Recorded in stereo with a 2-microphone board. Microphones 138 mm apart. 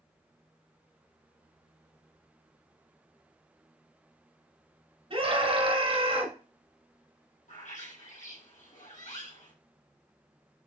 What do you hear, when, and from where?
5.1 s a scream: 45° right (ahead or behind), 2.5 m
7.5 s a bird: 75° left (ahead or behind), 3.5 m